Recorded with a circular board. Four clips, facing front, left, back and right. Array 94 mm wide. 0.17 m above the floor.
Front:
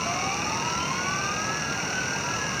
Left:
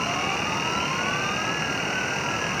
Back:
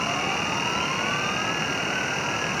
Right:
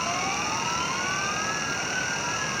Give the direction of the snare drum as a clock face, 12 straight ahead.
I don't hear a snare drum.